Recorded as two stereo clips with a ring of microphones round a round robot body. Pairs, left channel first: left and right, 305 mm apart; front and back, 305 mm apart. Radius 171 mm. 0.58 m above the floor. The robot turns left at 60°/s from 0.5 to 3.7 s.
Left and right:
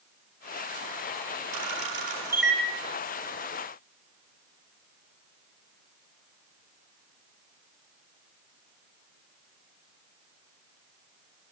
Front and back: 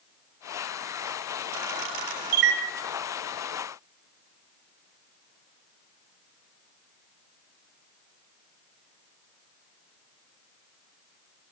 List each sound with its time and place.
1.5 s a camera shutter: 125° right, 4 m; by 2.6 s 170° left, 4 m